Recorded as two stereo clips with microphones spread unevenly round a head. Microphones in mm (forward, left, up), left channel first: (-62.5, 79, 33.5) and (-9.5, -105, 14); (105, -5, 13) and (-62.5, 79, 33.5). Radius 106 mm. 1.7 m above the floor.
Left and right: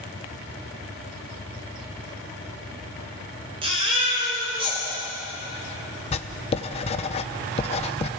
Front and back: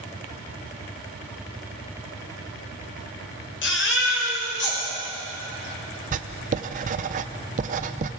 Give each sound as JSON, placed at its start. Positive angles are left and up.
{"t": 3.6, "sound": "a baby crying", "azimuth_deg": -5, "distance_m": 6.5}
{"t": 6.1, "sound": "writing", "azimuth_deg": 140, "distance_m": 0.8}